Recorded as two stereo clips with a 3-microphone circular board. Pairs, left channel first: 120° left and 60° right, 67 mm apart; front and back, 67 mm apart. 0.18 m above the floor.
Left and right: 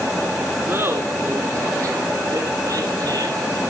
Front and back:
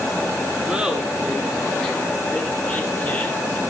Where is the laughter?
100° right, 2 m; by 3.6 s 50° right, 4.5 m.